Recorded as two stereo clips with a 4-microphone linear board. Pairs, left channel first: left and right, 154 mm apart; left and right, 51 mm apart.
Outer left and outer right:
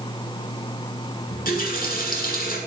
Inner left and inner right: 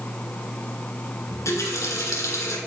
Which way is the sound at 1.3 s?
70° left (ahead or behind).